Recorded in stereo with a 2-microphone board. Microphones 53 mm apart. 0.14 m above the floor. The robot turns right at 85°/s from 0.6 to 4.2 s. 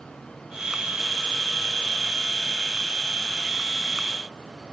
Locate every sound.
Only background noise.